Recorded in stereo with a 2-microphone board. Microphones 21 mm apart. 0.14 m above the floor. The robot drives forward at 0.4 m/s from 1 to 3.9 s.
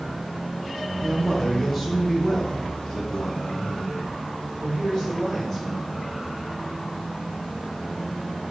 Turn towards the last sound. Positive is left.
turn(degrees=10)  # may be behind; listen again after turning